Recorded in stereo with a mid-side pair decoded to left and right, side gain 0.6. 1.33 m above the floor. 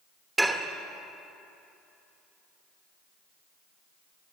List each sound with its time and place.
0.4 s dishes clattering: 10° right, 1.3 m